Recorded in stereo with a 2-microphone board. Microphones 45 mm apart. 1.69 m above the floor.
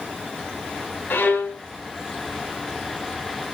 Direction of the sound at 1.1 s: 45° left (ahead or behind).